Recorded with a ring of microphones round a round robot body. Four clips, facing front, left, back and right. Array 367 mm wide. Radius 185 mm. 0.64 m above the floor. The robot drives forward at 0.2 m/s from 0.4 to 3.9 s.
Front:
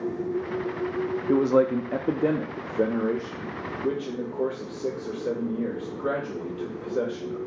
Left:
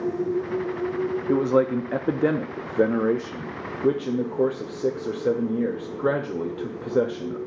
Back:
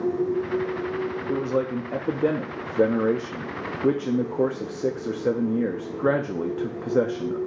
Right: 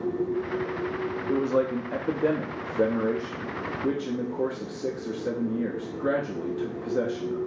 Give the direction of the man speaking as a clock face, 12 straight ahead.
10 o'clock.